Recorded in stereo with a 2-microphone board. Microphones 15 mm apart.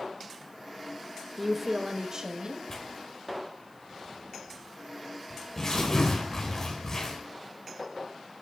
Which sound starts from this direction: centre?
A woman speaking, at 1.4 s.